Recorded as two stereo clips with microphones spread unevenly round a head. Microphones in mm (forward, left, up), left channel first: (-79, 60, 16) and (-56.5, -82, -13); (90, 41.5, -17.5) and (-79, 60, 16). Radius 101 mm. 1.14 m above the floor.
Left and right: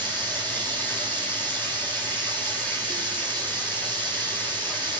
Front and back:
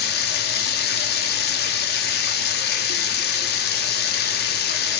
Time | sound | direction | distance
0.0 | running water | 15° left | 2 m